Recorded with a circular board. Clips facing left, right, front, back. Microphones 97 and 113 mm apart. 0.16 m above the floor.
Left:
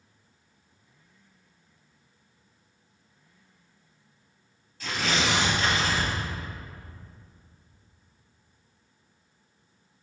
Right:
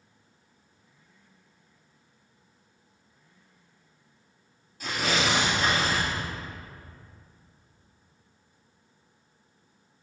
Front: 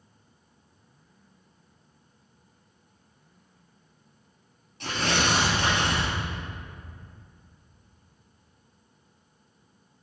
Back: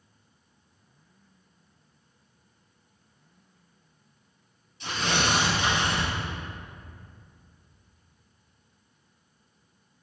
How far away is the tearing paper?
About 2.5 m.